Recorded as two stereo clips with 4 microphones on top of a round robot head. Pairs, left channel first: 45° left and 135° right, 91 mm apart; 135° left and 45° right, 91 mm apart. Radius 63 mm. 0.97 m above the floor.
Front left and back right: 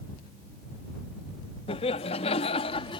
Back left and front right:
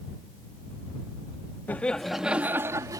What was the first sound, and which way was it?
Laughter, 65° left.